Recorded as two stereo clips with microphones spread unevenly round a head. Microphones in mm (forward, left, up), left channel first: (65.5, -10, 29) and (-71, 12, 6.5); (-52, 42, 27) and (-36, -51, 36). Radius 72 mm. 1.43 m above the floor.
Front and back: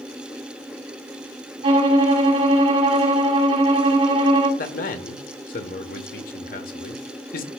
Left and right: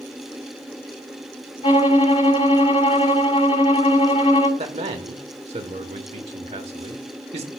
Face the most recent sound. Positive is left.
turn(degrees=-45)